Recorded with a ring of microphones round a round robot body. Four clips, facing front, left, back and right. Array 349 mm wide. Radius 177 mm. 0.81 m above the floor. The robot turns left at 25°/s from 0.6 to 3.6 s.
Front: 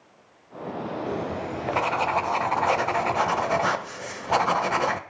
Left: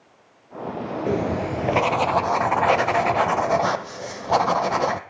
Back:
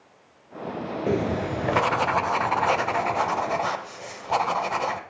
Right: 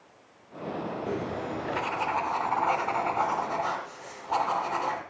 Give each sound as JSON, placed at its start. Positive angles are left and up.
{"t": 1.1, "sound": "writing", "azimuth_deg": 135, "distance_m": 0.9}